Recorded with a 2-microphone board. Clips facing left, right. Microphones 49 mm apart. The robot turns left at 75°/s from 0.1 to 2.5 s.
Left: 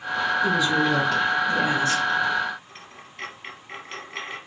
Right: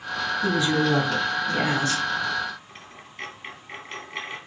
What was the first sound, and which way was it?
A woman speaking, 35° right.